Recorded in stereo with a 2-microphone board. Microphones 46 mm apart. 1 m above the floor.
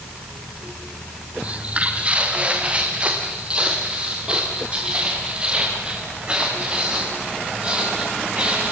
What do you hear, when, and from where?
1.4 s footsteps: 25° right (ahead or behind), 1.9 m; by 8.7 s 20° right (ahead or behind), 11 m